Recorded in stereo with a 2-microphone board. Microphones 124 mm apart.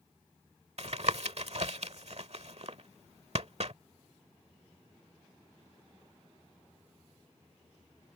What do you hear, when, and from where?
0.8 s tapping: 60° right (ahead or behind)